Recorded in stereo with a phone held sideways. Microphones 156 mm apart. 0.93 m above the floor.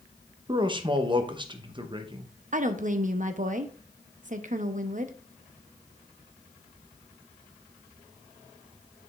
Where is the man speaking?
30° right (ahead or behind), 0.8 m.